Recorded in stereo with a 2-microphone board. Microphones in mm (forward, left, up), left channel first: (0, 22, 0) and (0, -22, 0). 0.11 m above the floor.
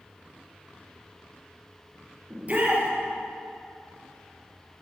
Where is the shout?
35° right (ahead or behind), 2.5 m.